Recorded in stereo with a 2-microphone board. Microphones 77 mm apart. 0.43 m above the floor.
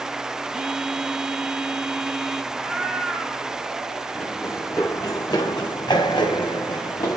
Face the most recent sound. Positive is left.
turn(degrees=65)  # may be behind; listen again after turning